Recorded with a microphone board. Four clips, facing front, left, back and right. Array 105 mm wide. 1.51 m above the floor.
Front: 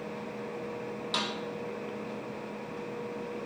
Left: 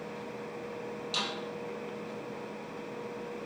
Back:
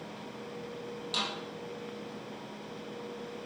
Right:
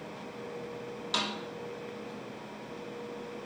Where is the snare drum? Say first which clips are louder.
Right 4 dB, front 3 dB; 60° right, 4.5 m.